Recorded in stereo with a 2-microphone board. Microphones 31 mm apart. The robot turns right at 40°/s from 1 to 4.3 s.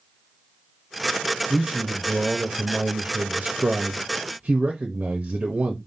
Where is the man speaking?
Straight behind, 0.7 m; by 5.8 s 65° right, 0.7 m.